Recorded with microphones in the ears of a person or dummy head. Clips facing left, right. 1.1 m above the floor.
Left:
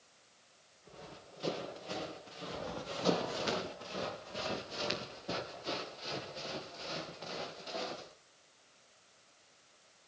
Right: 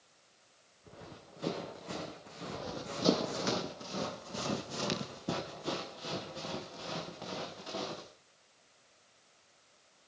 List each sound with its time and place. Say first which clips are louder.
0.8 s running footsteps: right 1 dB; 60° right (ahead or behind), 6.5 m; by 3.5 s 55° right (ahead or behind), 3.5 m
2.5 s running footsteps: even; 25° right (ahead or behind), 1.7 m; by 8.1 s 80° right, 5.5 m